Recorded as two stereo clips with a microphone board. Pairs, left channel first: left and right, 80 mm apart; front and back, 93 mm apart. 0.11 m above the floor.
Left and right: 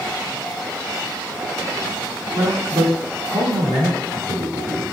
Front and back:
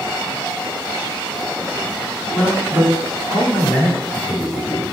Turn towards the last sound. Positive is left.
turn(degrees=-75)